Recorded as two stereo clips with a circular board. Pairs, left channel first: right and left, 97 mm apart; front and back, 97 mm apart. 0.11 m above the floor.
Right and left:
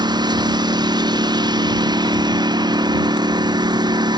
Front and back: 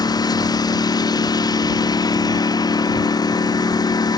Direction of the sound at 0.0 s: 45° left.